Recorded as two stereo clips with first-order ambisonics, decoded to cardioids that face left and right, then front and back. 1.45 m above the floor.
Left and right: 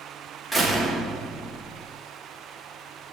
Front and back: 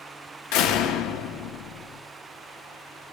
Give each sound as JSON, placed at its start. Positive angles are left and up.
{"t": 0.5, "sound": "a door slam", "azimuth_deg": 0, "distance_m": 1.4}